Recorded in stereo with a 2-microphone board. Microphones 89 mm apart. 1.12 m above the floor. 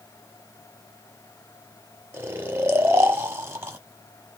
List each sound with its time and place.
2.1 s snoring: 30° right (ahead or behind), 0.9 m